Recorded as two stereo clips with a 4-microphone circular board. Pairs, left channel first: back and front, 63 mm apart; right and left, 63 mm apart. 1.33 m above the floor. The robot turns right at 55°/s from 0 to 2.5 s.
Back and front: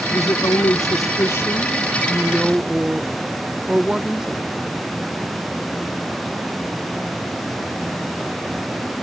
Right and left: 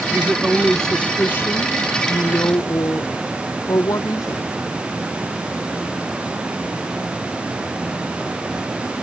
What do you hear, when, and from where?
0.1 s a woman speaking: 150° left, 0.7 m; by 4.5 s 80° right, 0.7 m